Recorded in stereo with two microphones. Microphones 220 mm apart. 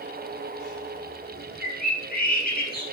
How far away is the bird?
About 2.5 m.